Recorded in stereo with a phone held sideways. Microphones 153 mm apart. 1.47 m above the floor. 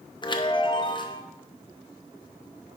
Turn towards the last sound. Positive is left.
turn(degrees=30)  # may be behind; listen again after turning